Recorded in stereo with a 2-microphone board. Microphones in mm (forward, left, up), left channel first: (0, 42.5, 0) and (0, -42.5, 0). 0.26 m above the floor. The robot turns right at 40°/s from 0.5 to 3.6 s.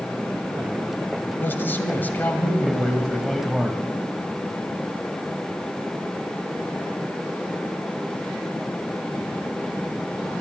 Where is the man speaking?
25° left (ahead or behind), 1.5 m; by 3.8 s centre (ahead or behind), 1.5 m.